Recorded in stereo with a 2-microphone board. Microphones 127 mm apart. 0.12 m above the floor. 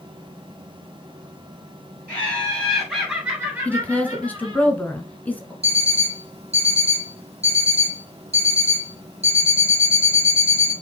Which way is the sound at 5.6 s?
60° right (ahead or behind).